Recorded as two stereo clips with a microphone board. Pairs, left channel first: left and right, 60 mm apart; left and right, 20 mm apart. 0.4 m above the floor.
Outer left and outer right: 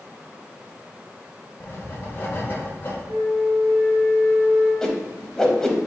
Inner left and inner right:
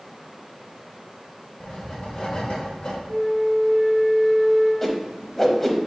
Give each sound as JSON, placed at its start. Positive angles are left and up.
{"t": 1.6, "sound": "writing", "side_deg": 40, "distance_m": 1.0}
{"t": 3.1, "sound": "a flute", "side_deg": -40, "distance_m": 1.9}
{"t": 4.8, "sound": "a whoosh", "side_deg": 10, "distance_m": 0.6}